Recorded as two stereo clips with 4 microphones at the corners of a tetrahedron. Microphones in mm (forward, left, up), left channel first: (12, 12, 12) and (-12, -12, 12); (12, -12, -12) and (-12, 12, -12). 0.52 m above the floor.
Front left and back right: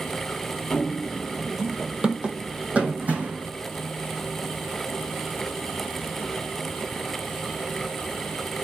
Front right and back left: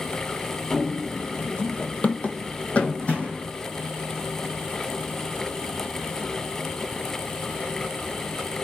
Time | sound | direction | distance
0.7 | running footsteps | 35° left | 0.6 m